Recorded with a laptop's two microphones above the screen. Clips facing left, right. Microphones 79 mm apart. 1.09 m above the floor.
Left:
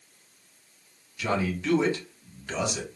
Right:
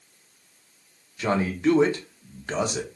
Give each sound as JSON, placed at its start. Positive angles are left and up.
{"t": 1.2, "sound": "a man speaking", "side_deg": -40, "distance_m": 0.9}